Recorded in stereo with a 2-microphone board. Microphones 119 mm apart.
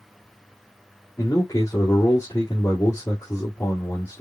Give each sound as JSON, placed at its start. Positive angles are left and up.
{"t": 1.2, "sound": "a man speaking", "side_deg": 25, "distance_m": 2.0}